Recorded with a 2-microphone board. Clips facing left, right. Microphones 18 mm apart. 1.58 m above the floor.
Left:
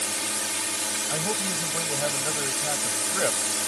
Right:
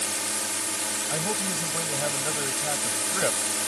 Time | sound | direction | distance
0.0 | a drone | 20° left (ahead or behind) | ?
1.1 | a man speaking | 5° left (ahead or behind) | ?